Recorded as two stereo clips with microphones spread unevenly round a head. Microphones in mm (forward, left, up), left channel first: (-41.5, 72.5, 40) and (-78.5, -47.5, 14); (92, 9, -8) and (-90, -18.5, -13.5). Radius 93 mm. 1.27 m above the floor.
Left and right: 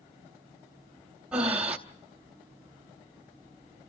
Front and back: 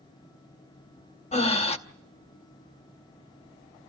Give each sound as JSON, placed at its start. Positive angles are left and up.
{"t": 1.3, "sound": "breathing", "azimuth_deg": -10, "distance_m": 0.8}